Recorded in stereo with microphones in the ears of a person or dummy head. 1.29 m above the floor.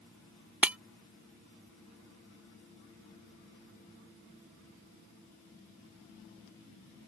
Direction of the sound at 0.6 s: 10° right (ahead or behind).